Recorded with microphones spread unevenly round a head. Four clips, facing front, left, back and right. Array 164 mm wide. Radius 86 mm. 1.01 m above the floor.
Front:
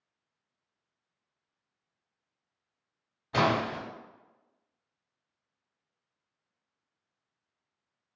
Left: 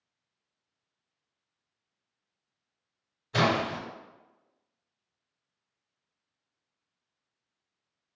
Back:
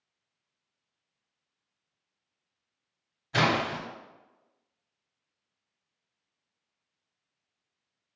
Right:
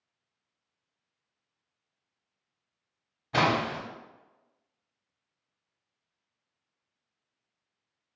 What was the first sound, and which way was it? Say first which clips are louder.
A splash: even, even; 70° right.